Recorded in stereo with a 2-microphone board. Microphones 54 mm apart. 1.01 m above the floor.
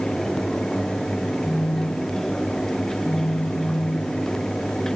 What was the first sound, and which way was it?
A phone buzzing, 60° left (ahead or behind).